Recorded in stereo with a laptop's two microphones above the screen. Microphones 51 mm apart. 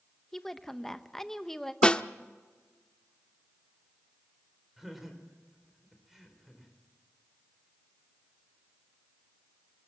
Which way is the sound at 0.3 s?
10° left (ahead or behind).